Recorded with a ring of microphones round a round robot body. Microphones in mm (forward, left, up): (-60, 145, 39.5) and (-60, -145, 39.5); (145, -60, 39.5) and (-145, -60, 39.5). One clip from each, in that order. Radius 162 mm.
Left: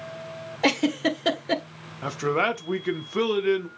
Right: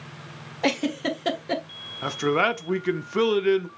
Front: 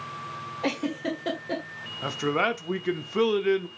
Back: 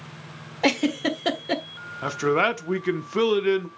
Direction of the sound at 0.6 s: 160° left.